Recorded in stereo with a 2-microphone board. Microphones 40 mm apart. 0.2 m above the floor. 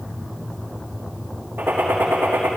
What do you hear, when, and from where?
1.6 s a gunshot: 65° right (ahead or behind), 4 m